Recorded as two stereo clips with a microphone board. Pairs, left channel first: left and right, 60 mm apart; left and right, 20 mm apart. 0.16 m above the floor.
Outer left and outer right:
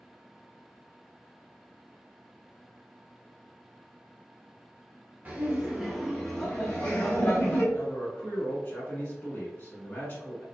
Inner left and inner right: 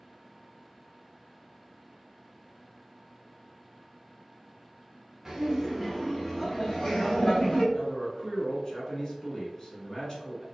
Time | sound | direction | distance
5.2 | laughter | 30° right (ahead or behind) | 1.1 m
7.7 | a man speaking | 40° left (ahead or behind) | 1.3 m